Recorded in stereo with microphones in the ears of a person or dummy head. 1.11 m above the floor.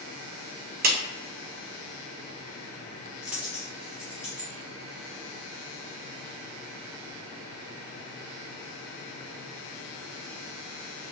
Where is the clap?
45° right (ahead or behind), 0.6 m.